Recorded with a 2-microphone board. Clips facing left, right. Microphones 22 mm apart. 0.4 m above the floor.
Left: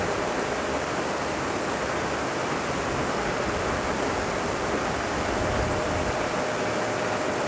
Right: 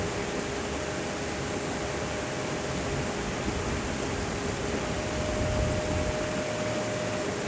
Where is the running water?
60° left (ahead or behind).